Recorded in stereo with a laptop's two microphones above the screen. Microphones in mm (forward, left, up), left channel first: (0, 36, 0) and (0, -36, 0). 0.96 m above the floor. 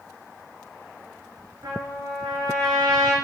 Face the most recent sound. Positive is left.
turn(degrees=-85)